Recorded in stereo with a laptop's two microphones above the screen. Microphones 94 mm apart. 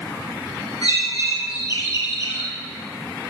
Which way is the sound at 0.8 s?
60° left (ahead or behind).